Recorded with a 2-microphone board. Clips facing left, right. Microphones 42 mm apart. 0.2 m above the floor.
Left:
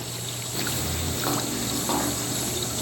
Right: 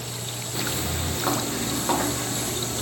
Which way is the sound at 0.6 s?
5° right (ahead or behind).